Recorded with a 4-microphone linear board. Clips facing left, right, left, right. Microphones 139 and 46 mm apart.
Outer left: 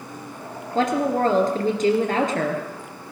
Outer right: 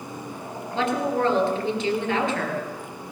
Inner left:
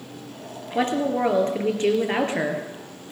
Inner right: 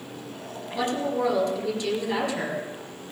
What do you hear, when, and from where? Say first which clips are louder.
0.8 s a woman speaking: outer left 3 dB, inner left 4 dB; 45° left (ahead or behind), 2.5 m